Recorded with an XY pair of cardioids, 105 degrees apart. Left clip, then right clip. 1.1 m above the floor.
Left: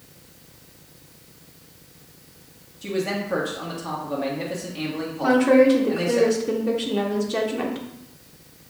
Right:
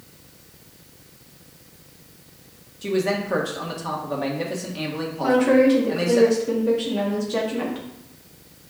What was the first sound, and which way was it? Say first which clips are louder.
A man speaking: right 3 dB; 20° right.